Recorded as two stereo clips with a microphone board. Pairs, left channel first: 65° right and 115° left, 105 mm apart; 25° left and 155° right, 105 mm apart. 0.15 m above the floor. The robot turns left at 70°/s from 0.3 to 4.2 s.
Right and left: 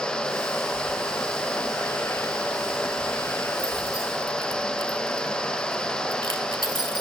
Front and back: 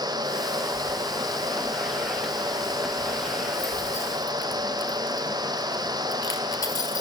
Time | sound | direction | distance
0.7 | keys jangling | 45° right | 1.8 m